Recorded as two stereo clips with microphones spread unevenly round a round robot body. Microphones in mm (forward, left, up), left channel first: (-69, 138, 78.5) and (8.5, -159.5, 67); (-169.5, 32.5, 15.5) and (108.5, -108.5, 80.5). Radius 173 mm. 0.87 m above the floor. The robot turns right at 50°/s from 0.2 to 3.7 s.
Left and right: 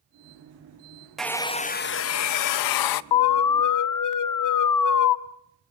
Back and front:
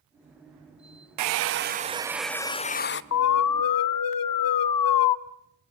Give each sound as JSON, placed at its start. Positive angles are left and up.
{"t": 1.2, "sound": "a hair dryer", "azimuth_deg": 15, "distance_m": 0.6}
{"t": 3.1, "sound": "an alarm", "azimuth_deg": 105, "distance_m": 0.8}